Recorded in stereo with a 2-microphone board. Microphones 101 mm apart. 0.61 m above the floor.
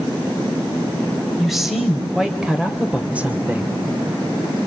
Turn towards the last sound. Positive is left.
turn(degrees=-20)  # may be behind; listen again after turning